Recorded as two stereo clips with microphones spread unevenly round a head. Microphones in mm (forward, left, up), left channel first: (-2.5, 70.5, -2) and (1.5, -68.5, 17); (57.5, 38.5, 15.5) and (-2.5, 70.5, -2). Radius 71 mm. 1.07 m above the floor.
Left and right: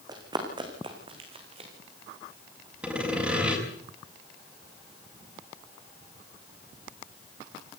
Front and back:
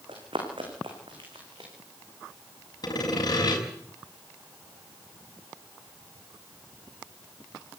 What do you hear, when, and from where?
0.1 s running footsteps: 150° right, 5 m; by 1.7 s 140° right, 5.5 m
2.8 s sawing: 5° right, 6.5 m